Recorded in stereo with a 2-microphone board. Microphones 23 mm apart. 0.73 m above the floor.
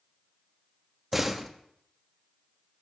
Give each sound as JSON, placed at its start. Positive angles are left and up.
{"t": 1.1, "sound": "a door slam", "side_deg": -10, "distance_m": 0.8}